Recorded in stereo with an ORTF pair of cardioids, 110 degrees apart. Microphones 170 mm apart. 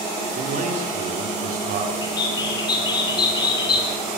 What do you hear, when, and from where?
0.3 s a man speaking: 50° right, 6 m; by 1.9 s 60° right, 7 m
2.0 s a bird: 25° left, 6 m